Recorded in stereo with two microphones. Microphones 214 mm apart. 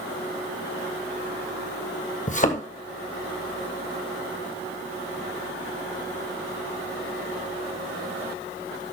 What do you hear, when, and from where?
2.3 s a thud: 35° left (ahead or behind), 1.2 m